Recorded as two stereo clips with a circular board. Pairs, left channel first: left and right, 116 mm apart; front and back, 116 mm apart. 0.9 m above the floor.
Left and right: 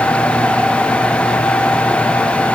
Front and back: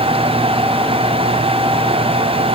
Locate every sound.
Only background noise.